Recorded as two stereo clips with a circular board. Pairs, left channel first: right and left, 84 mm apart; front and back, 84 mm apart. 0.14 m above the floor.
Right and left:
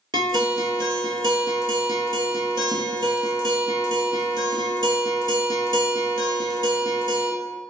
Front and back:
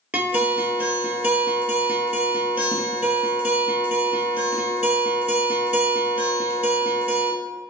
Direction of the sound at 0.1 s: 110° left.